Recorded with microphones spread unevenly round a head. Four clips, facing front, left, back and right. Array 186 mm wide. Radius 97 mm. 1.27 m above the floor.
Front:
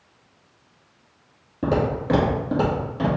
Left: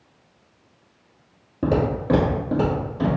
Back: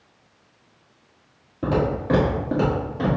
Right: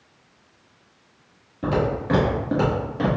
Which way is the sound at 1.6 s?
80° left.